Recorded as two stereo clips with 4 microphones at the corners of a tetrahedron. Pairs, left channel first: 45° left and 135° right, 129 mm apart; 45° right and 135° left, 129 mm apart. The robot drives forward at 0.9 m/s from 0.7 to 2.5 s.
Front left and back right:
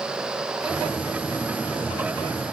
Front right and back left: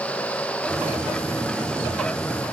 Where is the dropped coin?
No dropped coin in this recording.